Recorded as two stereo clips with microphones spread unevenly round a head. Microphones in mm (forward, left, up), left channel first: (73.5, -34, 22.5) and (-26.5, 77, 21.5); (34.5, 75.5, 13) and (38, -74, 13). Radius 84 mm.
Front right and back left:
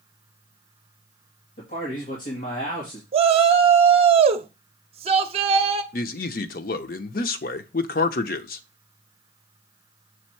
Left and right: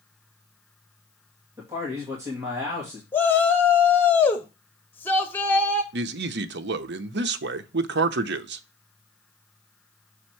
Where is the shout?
165° left, 0.7 m.